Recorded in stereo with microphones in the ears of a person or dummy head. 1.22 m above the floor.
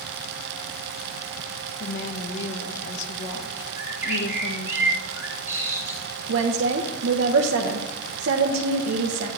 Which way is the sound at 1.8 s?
65° left (ahead or behind).